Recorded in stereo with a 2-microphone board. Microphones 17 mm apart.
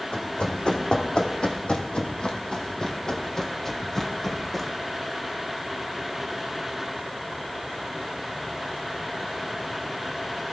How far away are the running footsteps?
About 2.5 m.